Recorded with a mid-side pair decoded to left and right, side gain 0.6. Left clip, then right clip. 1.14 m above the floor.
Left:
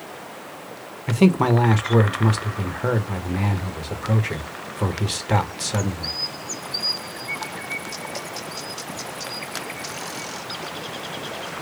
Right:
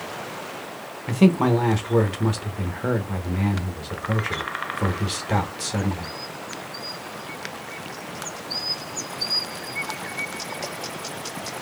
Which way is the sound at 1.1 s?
15° left.